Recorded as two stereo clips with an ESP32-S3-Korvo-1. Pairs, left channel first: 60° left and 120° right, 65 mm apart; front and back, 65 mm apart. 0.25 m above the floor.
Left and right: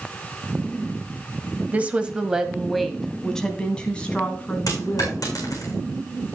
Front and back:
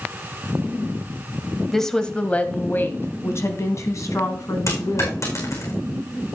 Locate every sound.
1.7 s a woman speaking: 80° right, 1.0 m; by 5.7 s straight ahead, 2.5 m
4.7 s a dropped coin: 35° left, 5 m